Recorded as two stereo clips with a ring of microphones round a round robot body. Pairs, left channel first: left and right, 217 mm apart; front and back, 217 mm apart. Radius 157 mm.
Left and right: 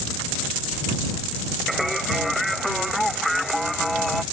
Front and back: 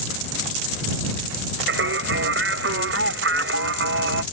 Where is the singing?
Straight behind.